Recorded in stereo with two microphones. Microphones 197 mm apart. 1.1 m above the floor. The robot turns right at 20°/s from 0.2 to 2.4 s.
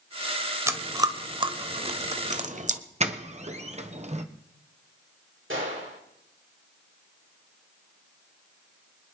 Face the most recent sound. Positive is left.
turn(degrees=-85)